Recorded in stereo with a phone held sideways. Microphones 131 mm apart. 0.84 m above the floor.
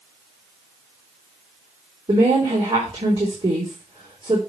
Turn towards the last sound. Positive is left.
turn(degrees=-45)  # may be behind; listen again after turning